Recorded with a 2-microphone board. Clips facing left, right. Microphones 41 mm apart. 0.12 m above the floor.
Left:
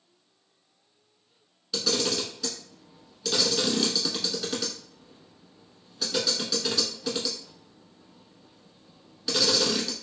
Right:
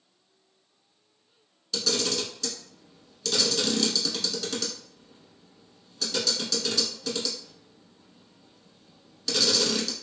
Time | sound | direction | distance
1.7 | a camera shutter | 10° left (ahead or behind) | 0.8 m